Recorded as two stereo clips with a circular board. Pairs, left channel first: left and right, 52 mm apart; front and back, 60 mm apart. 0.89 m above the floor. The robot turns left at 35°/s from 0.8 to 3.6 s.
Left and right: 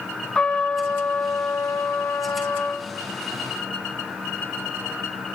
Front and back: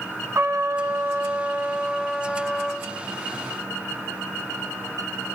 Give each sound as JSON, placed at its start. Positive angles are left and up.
{"t": 0.3, "sound": "a trumpet", "azimuth_deg": 155, "distance_m": 1.2}